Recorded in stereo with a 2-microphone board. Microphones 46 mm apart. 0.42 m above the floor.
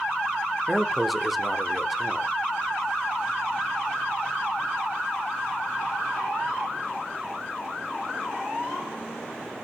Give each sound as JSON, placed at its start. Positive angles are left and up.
{"t": 0.7, "sound": "a man speaking", "side_deg": 0, "distance_m": 0.9}